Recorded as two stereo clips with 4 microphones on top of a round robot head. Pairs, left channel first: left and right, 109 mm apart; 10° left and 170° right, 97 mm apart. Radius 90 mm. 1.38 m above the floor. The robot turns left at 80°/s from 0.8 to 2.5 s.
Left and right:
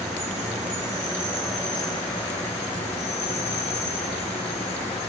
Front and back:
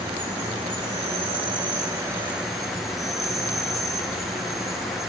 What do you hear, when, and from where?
0.0 s an insect: 125° right, 1.8 m; by 5.1 s 100° left, 1.8 m